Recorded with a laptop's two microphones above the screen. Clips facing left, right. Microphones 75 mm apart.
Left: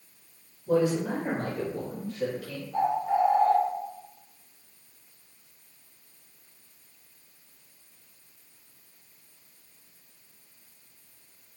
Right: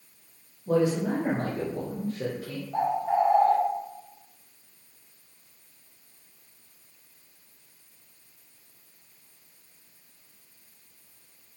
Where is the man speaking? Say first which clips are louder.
Right 1 dB; 50° right (ahead or behind), 1.7 m; by 2.6 s 25° right (ahead or behind), 0.8 m.